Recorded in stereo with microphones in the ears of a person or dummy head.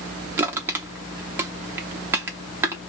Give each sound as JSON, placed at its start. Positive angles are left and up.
{"t": 0.4, "sound": "crushing", "side_deg": -15, "distance_m": 0.8}